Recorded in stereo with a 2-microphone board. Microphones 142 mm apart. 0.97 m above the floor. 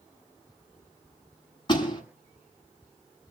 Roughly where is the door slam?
Left.